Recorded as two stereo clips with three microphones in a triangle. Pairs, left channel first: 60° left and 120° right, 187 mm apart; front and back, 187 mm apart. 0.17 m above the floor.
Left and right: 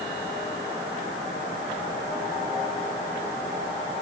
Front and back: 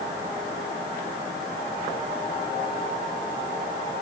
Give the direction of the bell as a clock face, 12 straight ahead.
No bell in this recording.